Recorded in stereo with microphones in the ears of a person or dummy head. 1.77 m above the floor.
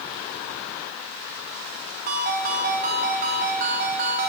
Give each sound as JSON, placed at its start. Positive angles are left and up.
{"t": 2.1, "sound": "a ringtone", "side_deg": -40, "distance_m": 1.0}